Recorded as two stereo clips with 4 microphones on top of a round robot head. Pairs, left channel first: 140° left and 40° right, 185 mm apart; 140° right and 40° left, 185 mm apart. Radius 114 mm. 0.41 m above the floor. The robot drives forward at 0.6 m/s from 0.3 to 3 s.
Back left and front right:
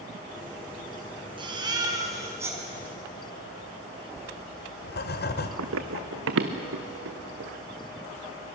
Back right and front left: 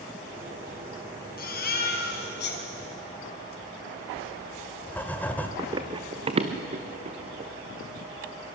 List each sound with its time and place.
1.4 s a baby crying: 105° right, 3 m; by 2.6 s 115° right, 3.5 m
4.2 s writing: 140° left, 1.7 m
5.6 s running footsteps: 35° right, 1.2 m; by 7.5 s 15° right, 3 m